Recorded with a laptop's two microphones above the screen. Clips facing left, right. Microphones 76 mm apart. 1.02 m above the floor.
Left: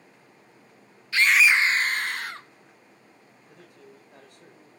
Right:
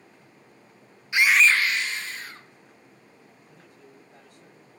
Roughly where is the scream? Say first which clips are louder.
Even; centre.